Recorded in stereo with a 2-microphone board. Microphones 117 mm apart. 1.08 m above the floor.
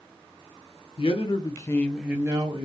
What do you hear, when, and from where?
1.0 s a man speaking: 55° left (ahead or behind), 0.8 m; by 2.7 s 45° right (ahead or behind), 0.7 m